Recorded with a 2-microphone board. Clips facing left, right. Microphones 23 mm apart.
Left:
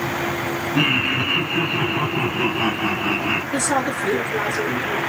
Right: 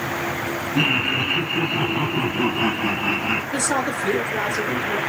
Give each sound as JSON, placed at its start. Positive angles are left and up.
{"t": 0.8, "sound": "laughter", "side_deg": 15, "distance_m": 1.6}
{"t": 3.5, "sound": "a woman speaking", "side_deg": 0, "distance_m": 2.0}